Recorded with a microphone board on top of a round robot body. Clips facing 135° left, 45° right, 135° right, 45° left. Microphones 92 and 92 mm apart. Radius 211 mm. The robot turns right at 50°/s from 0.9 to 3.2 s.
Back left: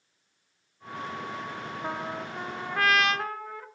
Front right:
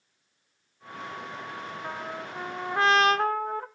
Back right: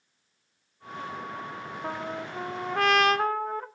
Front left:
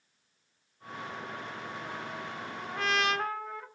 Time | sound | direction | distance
1.8 | a trumpet | 160° right | 0.7 m